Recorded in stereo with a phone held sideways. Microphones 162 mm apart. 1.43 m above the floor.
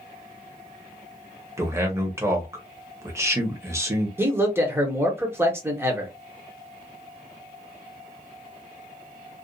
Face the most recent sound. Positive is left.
turn(degrees=-15)  # may be behind; listen again after turning